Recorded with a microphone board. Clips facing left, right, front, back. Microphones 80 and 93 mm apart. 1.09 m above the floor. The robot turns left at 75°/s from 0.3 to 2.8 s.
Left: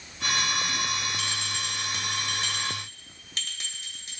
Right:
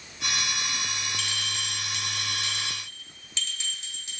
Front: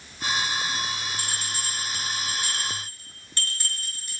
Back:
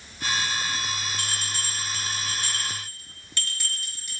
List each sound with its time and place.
1.2 s a bell: 170° left, 2 m; by 4.2 s 50° left, 2 m